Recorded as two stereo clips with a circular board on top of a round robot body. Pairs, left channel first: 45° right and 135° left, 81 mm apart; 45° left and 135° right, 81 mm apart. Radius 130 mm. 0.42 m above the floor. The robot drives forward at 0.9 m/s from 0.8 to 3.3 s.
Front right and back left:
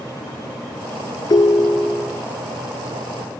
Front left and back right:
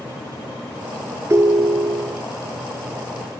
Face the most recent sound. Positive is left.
turn(degrees=-165)